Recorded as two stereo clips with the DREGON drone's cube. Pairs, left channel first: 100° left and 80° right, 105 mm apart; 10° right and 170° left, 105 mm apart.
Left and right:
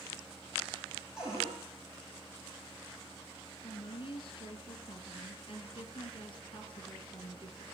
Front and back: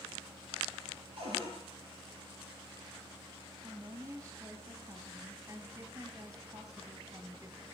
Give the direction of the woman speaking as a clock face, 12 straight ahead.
8 o'clock.